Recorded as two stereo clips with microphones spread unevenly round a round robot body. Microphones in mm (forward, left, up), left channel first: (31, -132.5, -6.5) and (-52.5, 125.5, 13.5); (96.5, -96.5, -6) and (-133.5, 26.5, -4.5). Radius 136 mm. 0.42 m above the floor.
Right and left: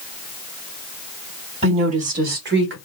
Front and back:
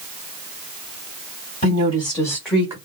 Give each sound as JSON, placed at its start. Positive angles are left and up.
{"t": 1.6, "sound": "a woman speaking", "azimuth_deg": 40, "distance_m": 1.9}